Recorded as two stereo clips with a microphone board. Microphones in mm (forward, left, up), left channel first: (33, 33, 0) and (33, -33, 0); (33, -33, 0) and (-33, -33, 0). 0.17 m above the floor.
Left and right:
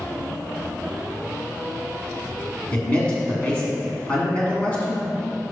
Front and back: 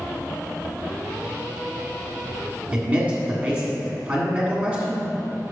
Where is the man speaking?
135° left, 1.6 m.